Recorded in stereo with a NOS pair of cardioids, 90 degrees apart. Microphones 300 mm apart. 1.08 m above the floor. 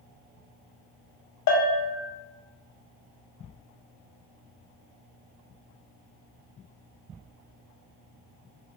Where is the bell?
70° left, 0.8 m.